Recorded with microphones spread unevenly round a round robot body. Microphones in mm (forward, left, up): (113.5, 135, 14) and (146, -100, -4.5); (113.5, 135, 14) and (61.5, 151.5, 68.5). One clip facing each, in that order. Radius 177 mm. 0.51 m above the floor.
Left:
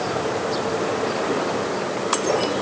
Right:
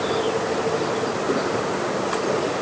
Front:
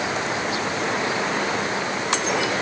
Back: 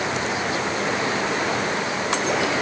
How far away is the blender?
I don't hear a blender.